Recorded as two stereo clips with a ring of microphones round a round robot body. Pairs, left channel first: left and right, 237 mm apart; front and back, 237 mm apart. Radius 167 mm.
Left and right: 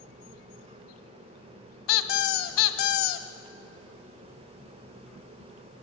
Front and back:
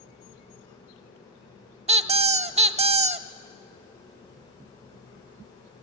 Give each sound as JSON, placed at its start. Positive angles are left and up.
{"t": 1.9, "sound": "a squeak", "azimuth_deg": 115, "distance_m": 0.8}